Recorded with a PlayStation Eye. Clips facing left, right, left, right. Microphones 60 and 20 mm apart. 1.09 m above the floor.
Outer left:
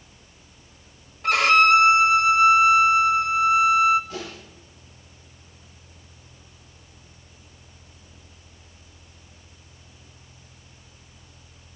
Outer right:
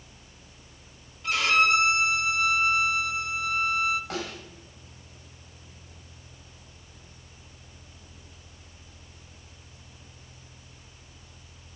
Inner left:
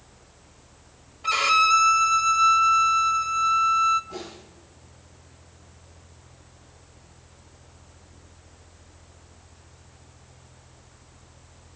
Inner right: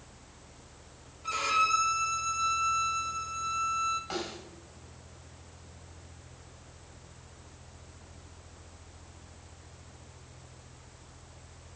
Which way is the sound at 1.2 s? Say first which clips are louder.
Outer left 6 dB, inner left 8 dB; 65° left (ahead or behind).